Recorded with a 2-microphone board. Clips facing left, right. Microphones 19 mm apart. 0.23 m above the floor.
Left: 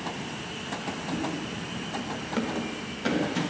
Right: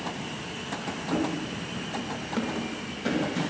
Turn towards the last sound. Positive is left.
turn(degrees=20)  # may be behind; listen again after turning